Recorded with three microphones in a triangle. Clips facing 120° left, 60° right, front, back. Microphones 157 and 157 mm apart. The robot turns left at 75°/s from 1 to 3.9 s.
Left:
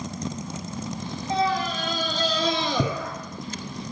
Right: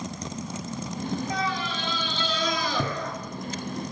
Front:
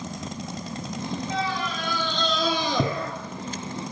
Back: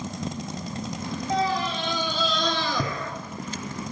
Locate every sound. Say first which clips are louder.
1.3 s a scream: left 5 dB, back 6 dB; 165° left, 1.4 m; by 3.1 s 30° left, 1.4 m